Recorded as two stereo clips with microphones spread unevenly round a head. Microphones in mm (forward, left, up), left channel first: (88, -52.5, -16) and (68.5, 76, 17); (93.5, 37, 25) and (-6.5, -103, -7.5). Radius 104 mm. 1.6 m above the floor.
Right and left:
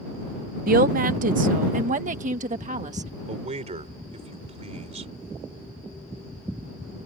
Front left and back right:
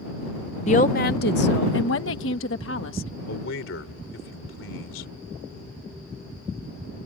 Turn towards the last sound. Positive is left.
turn(degrees=75)